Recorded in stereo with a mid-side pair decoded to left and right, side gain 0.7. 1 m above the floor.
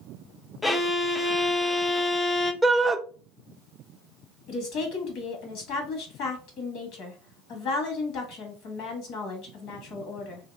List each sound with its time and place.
0.6 s a violin: 15° left, 0.6 m
2.6 s a shout: 5° right, 0.6 m
4.5 s a woman speaking: 60° left, 1.7 m